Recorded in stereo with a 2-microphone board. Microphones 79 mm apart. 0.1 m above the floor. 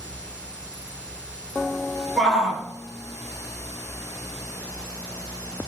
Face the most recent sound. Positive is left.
turn(degrees=-5)  # may be behind; listen again after turning